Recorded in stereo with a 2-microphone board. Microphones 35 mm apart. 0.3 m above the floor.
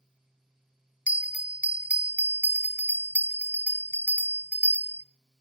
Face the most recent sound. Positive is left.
turn(degrees=-50)  # may be behind; listen again after turning